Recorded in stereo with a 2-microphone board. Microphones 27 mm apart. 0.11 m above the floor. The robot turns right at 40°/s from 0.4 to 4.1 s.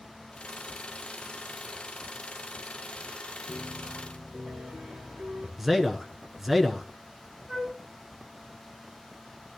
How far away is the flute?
About 9.5 m.